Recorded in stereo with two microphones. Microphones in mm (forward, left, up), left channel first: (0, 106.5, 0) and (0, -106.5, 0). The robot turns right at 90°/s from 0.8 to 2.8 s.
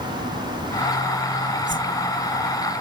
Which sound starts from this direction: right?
A whoosh, at 1.7 s.